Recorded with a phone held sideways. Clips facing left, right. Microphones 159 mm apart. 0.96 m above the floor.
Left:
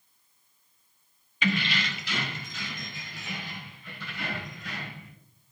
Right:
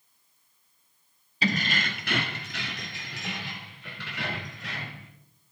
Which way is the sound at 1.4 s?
35° right (ahead or behind).